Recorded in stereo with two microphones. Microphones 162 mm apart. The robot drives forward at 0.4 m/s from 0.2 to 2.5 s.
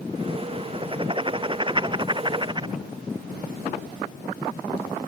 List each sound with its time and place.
0.7 s writing: 30° right (ahead or behind)